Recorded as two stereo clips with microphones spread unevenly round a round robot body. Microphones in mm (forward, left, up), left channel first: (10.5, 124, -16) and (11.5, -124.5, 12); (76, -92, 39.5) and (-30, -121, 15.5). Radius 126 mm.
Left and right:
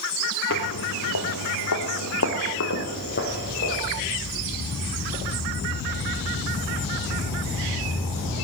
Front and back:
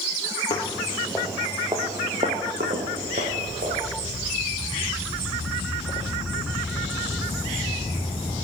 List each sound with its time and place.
0.5 s footsteps: 55° left, 1.1 m; by 3.8 s 145° left, 3 m